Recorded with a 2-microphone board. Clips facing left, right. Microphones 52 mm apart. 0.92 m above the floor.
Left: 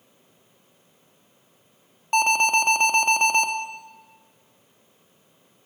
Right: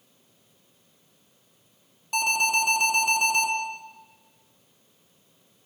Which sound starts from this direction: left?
An alarm, at 2.1 s.